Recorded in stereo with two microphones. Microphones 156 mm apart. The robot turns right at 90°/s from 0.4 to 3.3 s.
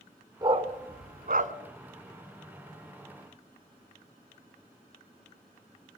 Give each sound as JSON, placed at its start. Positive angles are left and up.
{"t": 0.4, "sound": "a dog barking", "side_deg": -25, "distance_m": 1.2}